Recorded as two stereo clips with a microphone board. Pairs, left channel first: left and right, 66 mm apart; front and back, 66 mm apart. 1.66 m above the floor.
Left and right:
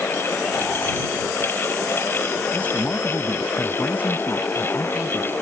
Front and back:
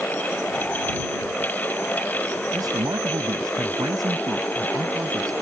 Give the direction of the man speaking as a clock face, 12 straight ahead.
7 o'clock.